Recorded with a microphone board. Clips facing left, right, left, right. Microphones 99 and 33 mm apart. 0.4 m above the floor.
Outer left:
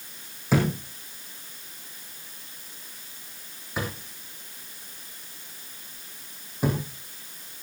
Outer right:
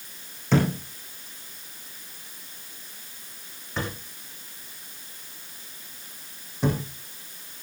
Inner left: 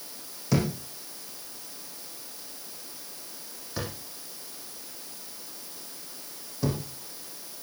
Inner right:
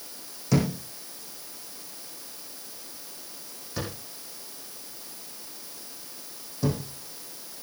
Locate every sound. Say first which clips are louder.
0.5 s a thud: outer right 1 dB, inner right 2 dB; 10° left (ahead or behind), 6 m